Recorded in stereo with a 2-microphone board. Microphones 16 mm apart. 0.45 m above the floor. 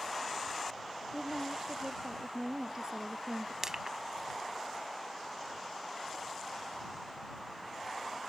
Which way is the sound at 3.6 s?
30° right (ahead or behind).